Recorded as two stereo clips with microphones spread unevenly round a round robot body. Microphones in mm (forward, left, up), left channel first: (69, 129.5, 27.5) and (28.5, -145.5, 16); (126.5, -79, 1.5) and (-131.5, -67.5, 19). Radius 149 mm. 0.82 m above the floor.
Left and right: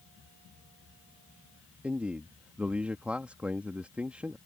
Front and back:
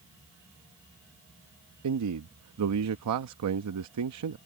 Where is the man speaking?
175° left.